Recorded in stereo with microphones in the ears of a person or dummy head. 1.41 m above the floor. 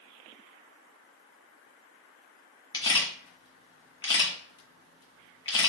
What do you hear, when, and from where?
2.7 s a camera shutter: 25° left (ahead or behind), 1.3 m